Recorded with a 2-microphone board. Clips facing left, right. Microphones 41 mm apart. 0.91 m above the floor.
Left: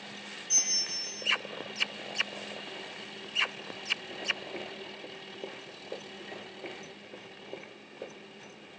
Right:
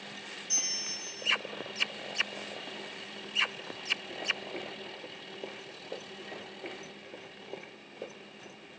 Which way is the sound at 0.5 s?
50° left (ahead or behind).